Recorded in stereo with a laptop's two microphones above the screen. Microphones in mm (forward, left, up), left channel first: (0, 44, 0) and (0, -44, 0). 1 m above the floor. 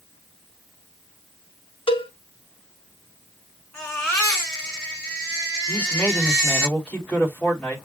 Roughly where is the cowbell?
Left.